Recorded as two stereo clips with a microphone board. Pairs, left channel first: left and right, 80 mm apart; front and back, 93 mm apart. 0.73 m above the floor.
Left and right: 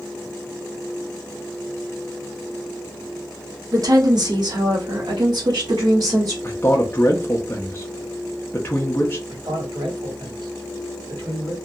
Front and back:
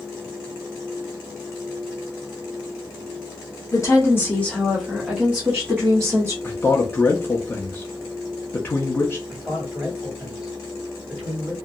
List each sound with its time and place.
3.7 s a woman speaking: 50° right, 1.0 m; by 6.3 s 125° right, 1.3 m
6.4 s a man speaking: 50° left, 0.6 m
9.3 s a man speaking: 100° right, 1.9 m